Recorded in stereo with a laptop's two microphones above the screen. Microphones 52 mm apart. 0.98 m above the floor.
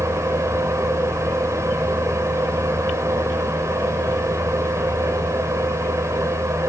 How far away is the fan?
About 2.5 m.